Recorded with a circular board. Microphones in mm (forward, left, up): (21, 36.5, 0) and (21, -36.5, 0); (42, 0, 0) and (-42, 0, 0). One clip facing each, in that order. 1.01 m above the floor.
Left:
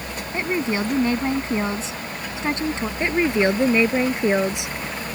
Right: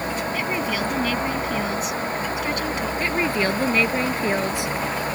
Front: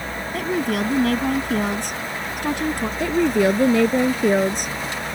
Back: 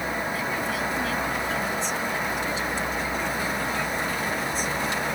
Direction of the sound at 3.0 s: 20° left.